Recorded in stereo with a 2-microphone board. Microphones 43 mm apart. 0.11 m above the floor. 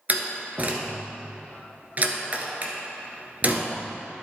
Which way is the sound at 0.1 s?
40° right (ahead or behind).